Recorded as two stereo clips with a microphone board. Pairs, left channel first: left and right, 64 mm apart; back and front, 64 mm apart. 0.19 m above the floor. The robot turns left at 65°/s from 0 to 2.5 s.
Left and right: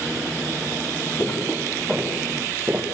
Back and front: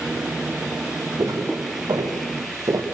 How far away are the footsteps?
About 4.5 m.